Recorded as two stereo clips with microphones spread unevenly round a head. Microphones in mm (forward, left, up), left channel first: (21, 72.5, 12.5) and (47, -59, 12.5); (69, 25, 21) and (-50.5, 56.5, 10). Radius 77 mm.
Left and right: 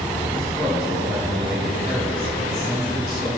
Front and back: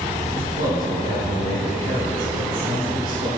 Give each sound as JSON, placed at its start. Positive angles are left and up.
{"t": 0.3, "sound": "a man speaking", "azimuth_deg": -175, "distance_m": 4.5}